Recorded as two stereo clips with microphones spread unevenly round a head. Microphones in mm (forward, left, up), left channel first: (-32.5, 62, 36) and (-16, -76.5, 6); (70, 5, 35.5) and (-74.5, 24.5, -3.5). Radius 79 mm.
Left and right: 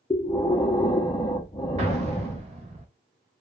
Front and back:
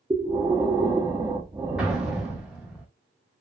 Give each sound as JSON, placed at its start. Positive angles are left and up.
{"t": 0.1, "sound": "breathing", "azimuth_deg": 160, "distance_m": 0.6}
{"t": 1.8, "sound": "an explosion", "azimuth_deg": -75, "distance_m": 0.6}